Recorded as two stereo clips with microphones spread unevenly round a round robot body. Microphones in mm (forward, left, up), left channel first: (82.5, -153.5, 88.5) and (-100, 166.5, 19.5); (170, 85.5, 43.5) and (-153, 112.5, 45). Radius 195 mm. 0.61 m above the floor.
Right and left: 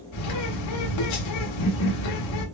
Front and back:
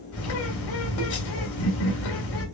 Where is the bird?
55° right, 1.7 m.